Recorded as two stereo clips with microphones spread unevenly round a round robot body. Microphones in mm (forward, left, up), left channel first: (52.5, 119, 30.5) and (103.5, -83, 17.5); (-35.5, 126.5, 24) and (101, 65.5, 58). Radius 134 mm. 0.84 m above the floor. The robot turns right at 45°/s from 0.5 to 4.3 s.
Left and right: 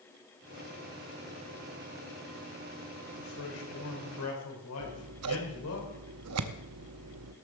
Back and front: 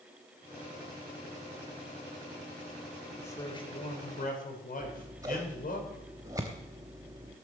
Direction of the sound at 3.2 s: 80° left.